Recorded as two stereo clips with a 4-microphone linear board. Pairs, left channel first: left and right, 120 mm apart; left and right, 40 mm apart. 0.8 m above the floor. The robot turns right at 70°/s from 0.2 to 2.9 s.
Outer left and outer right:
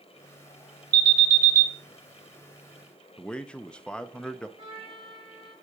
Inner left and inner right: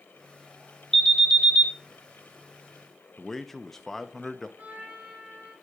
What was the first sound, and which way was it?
An alarm, 170° left.